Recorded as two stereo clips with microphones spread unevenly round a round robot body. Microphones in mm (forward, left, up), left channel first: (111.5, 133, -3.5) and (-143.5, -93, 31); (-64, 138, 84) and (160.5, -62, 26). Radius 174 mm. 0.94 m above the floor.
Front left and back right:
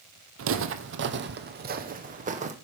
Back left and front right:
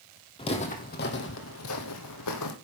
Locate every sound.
0.4 s footsteps: 165° right, 1.3 m; by 2.5 s 155° left, 1.9 m